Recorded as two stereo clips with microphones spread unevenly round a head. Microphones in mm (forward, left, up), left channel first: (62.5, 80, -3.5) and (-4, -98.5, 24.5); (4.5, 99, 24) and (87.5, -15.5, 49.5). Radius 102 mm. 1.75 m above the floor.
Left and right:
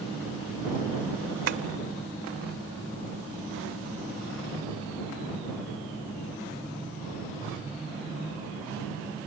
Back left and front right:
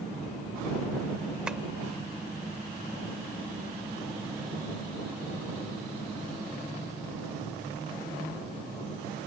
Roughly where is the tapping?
Behind right.